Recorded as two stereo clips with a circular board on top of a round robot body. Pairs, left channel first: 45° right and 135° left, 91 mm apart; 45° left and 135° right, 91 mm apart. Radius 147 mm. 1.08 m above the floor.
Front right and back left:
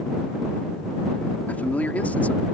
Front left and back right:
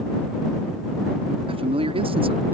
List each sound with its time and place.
1.5 s a man speaking: 120° right